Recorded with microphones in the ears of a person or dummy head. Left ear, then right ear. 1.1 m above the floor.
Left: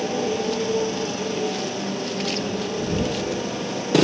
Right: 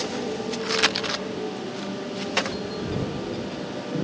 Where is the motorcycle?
80° left.